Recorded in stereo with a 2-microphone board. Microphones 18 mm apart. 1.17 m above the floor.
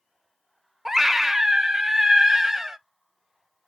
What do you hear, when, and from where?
0.8 s a scream: 20° right (ahead or behind), 0.7 m